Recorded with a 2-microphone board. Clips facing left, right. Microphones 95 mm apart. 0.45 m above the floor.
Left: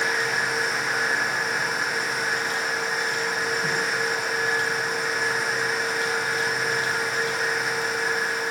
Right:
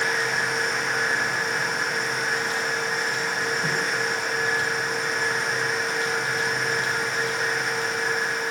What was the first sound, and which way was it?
Only background noise.